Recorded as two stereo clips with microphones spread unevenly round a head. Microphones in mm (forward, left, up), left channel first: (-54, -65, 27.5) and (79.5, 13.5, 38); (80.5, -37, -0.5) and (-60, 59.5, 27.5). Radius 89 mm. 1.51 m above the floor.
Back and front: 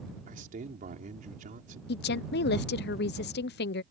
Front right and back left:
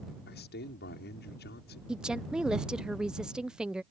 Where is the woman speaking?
130° right.